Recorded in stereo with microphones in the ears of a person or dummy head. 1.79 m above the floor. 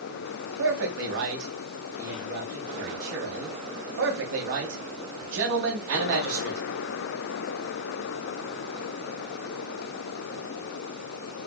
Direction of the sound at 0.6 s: 65° right (ahead or behind).